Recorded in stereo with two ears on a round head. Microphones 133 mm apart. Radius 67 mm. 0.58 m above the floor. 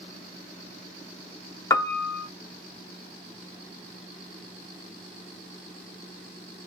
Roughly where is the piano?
Left.